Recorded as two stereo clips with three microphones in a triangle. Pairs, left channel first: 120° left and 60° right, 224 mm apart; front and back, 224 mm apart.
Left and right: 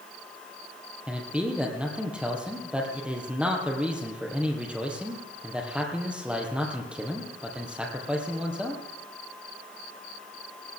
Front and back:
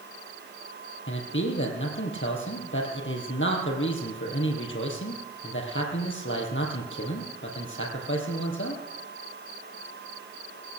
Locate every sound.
1.1 s a man speaking: 25° left, 2.5 m